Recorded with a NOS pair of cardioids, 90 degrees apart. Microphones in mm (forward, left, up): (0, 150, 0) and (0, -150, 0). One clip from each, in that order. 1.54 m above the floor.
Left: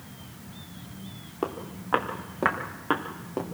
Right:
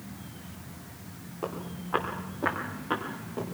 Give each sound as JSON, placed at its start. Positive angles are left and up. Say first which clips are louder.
{"t": 1.4, "sound": "footsteps", "louder": "left 4 dB", "azimuth_deg": 65, "distance_m": 6.0}